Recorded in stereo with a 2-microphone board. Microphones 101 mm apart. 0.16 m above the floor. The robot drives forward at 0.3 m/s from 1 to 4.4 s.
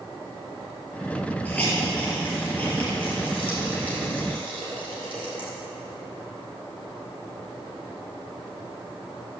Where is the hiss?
15° left (ahead or behind), 4 m.